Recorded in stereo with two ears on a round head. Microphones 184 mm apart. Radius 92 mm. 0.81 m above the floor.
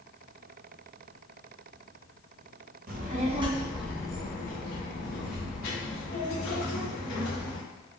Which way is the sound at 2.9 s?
45° right (ahead or behind).